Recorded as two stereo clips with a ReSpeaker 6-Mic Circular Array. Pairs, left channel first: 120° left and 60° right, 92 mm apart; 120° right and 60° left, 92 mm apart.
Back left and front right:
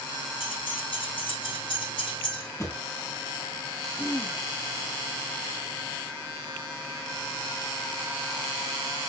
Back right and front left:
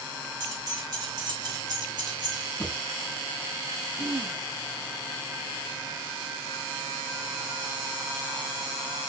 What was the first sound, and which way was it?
Keys jangling, 105° left.